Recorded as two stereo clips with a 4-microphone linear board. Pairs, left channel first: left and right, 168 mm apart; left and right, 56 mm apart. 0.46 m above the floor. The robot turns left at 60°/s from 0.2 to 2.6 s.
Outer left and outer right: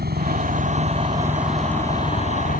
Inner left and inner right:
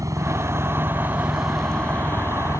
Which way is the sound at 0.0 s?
100° right.